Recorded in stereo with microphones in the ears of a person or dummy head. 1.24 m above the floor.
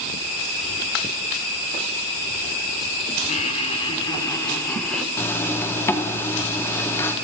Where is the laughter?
40° left (ahead or behind), 3 m; by 5.1 s 5° left (ahead or behind), 3 m.